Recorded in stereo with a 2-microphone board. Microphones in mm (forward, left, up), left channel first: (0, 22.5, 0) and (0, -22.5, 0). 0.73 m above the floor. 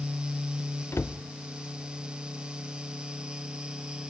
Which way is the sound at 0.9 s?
65° left (ahead or behind).